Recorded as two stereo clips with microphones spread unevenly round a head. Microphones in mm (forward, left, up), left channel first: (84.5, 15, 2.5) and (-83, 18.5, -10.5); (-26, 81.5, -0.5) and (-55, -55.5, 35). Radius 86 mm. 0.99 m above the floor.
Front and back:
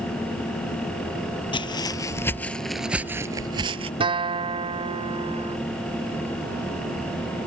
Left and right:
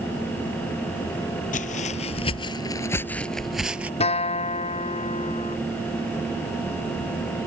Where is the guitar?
120° left.